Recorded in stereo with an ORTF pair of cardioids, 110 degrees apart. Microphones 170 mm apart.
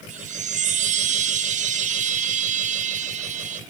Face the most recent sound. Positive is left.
turn(degrees=-50)